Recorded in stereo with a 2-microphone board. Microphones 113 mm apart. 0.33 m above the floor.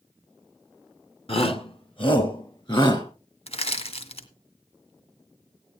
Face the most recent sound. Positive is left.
turn(degrees=65)  # may be behind; listen again after turning